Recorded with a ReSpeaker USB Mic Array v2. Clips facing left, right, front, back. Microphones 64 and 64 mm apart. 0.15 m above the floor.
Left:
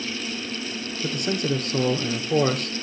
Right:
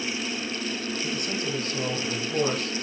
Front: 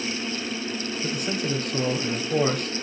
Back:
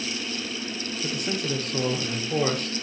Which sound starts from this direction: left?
A man speaking, at 1.0 s.